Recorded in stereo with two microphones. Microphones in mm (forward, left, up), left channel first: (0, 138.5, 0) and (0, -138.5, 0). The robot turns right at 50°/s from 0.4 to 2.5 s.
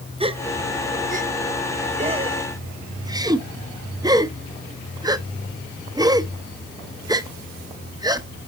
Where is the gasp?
20° right (ahead or behind), 0.6 m; by 8.3 s 15° right (ahead or behind), 0.6 m.